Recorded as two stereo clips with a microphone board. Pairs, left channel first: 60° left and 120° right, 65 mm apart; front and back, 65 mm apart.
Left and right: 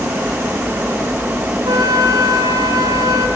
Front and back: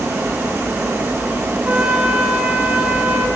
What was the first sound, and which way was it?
A flute, 105° right.